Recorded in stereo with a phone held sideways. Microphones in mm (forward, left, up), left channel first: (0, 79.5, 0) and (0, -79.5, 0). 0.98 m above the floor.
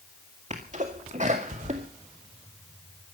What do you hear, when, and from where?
0.5 s a sneeze: 50° right (ahead or behind), 1.9 m